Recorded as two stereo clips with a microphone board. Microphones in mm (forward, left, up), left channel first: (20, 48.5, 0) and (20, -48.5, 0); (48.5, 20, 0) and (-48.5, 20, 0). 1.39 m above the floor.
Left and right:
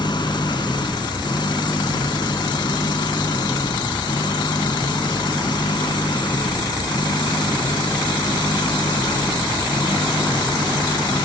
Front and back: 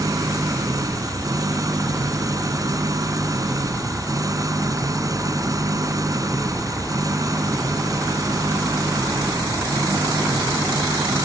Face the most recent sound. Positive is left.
turn(degrees=130)